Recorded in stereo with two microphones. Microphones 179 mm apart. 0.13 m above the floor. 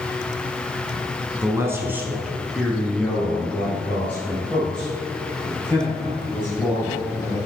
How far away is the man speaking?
About 1.0 m.